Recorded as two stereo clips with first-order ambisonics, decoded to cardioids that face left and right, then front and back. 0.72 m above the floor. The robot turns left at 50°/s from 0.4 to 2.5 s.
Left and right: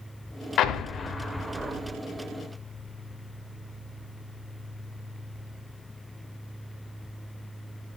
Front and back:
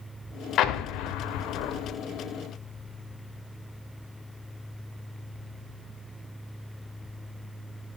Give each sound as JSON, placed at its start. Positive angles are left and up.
{"t": 0.6, "sound": "an explosion", "azimuth_deg": 40, "distance_m": 0.7}